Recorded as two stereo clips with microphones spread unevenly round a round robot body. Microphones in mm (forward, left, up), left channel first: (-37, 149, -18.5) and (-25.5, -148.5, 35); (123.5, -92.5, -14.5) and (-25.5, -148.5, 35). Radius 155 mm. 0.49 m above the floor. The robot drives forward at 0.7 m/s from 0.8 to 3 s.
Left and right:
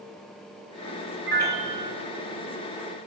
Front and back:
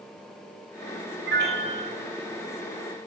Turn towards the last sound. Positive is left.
turn(degrees=-155)